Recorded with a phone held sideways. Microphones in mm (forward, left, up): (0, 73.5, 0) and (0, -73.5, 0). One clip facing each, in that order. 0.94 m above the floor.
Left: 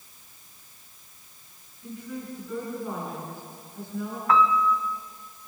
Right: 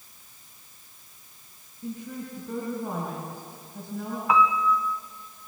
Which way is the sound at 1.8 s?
60° right (ahead or behind).